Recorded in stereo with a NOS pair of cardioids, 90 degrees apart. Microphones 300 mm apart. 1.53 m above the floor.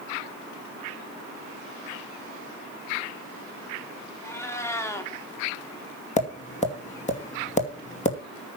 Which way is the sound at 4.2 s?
10° left.